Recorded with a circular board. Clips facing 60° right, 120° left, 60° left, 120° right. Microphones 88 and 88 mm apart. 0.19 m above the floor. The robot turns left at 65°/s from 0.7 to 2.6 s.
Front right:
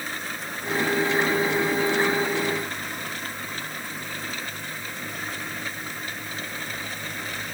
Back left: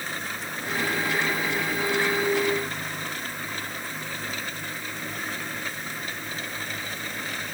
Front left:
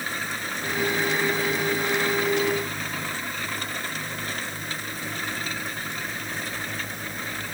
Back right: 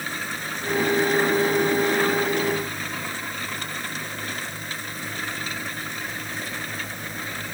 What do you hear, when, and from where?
Only background noise.